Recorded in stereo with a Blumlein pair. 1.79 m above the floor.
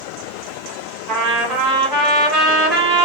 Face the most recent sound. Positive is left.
turn(degrees=-25)